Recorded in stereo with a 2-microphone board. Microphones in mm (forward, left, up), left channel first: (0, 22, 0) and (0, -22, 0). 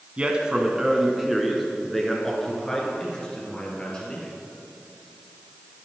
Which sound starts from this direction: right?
A man speaking, at 0.2 s.